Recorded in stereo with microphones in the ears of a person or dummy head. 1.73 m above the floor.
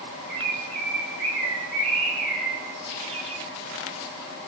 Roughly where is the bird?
Right.